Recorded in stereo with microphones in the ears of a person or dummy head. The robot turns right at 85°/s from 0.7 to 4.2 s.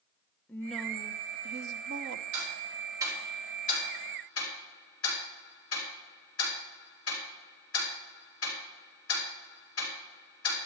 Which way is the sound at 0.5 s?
175° left.